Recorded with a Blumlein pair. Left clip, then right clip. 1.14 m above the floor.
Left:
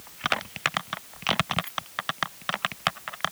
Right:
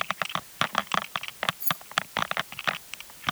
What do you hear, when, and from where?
1.6 s keys jangling: 35° right